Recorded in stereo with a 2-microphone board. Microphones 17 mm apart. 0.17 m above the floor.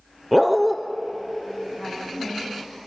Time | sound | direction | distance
0.3 | a dog barking | 5° right (ahead or behind) | 1.7 m
1.8 | a woman speaking | 5° right (ahead or behind) | 10 m